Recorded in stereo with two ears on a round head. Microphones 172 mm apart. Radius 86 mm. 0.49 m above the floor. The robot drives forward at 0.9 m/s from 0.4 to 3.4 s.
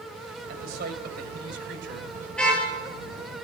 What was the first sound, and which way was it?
A man speaking, 50° right (ahead or behind).